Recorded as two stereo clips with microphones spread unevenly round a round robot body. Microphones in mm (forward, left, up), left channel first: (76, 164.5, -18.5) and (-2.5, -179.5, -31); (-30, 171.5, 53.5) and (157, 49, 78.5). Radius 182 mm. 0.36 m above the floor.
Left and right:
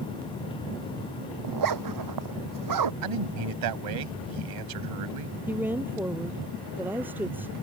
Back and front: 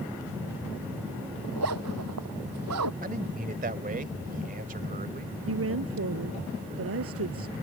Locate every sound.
1.4 s a zipper: 70° right
3.0 s a man speaking: 90° right
5.5 s a woman speaking: 20° right